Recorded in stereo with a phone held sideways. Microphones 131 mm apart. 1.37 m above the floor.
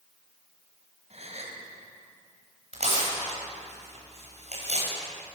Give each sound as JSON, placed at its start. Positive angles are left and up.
{"t": 1.1, "sound": "a gasp", "side_deg": -55, "distance_m": 5.0}
{"t": 2.7, "sound": "tearing paper", "side_deg": -55, "distance_m": 8.5}